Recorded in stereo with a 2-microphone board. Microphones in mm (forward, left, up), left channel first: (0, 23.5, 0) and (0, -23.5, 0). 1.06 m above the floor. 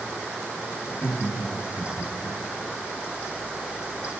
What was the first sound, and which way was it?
Laughter, 35° left (ahead or behind).